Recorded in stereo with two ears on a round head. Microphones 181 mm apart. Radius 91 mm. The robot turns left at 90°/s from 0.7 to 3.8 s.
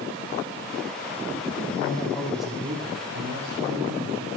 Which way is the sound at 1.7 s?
60° left.